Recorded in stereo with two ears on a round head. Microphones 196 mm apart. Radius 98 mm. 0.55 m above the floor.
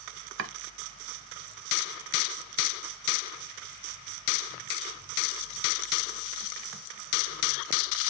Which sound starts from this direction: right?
Chopping, at 0.4 s.